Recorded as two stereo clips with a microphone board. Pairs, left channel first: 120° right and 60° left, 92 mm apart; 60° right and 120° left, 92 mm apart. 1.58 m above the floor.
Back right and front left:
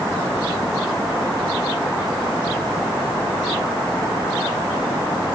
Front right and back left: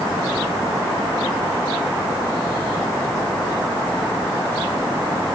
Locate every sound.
Only background noise.